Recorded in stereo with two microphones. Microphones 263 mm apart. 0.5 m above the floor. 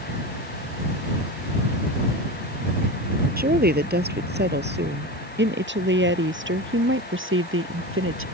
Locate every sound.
3.4 s a woman speaking: 35° right (ahead or behind); by 8.2 s 50° right (ahead or behind)